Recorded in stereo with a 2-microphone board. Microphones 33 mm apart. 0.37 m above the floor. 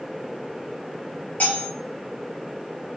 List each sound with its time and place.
1.4 s cutlery clinking: 50° left (ahead or behind), 1.0 m